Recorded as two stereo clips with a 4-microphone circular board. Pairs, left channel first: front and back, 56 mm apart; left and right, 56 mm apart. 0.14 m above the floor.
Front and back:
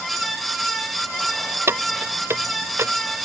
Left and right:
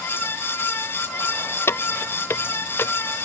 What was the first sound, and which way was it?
Keys jangling, 135° left.